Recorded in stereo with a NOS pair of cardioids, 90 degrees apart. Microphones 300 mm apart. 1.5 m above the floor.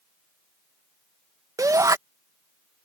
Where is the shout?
10° right.